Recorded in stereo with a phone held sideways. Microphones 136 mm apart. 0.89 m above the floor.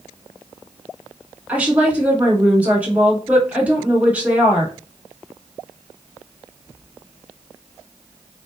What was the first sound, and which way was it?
A woman speaking, 10° right (ahead or behind).